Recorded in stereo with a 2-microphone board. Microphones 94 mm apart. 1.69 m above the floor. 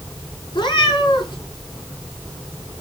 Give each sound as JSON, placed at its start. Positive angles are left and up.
{"t": 0.5, "sound": "a cat meowing", "side_deg": 55, "distance_m": 6.0}